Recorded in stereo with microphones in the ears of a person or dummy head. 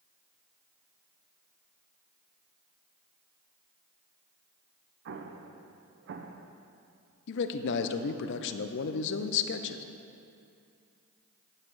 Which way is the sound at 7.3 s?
60° left (ahead or behind).